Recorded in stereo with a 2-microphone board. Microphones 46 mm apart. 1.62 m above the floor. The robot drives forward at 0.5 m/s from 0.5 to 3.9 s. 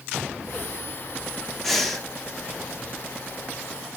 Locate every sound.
1.6 s breathing: 5° left (ahead or behind), 1.1 m